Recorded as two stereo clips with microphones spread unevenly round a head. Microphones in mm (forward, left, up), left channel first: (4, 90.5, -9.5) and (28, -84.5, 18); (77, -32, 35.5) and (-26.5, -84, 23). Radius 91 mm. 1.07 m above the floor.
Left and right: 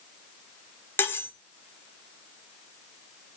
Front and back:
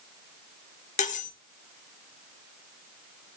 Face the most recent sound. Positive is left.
turn(degrees=20)